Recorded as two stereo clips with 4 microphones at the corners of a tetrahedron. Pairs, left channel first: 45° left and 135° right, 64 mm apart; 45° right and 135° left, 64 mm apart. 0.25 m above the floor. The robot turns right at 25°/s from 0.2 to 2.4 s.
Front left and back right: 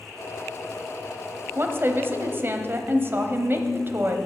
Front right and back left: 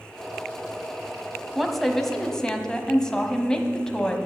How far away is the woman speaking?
About 1.1 m.